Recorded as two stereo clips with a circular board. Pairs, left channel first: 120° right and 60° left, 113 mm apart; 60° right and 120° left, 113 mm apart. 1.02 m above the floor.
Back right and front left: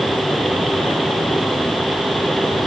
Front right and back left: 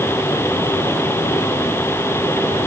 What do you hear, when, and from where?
Only background noise.